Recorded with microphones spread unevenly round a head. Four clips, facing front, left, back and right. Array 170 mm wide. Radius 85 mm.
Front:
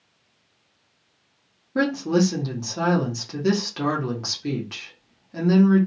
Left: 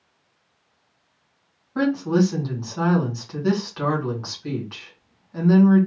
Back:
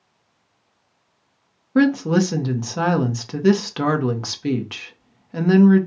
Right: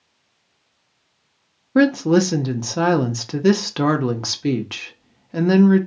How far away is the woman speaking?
About 1.2 m.